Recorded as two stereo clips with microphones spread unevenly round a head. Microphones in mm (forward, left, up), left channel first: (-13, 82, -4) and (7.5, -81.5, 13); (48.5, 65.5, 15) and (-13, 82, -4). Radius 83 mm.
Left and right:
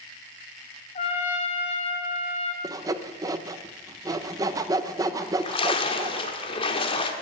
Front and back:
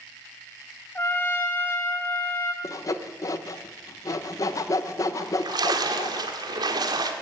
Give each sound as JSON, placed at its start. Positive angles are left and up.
{"t": 0.9, "sound": "a trumpet", "azimuth_deg": 45, "distance_m": 2.5}
{"t": 2.6, "sound": "sawing", "azimuth_deg": -20, "distance_m": 0.8}
{"t": 5.2, "sound": "a splash", "azimuth_deg": 160, "distance_m": 1.6}